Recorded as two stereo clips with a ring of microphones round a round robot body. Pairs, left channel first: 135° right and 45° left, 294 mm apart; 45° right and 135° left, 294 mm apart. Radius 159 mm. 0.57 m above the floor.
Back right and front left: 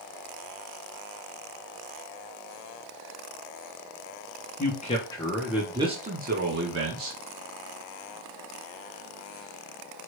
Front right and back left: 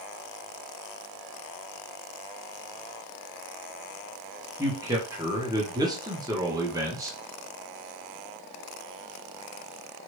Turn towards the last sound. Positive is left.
turn(degrees=60)